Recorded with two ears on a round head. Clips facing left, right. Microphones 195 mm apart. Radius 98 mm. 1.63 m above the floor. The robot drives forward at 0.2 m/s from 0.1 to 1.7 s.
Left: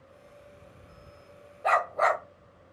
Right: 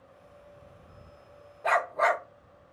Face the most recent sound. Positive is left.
turn(degrees=5)  # may be behind; listen again after turning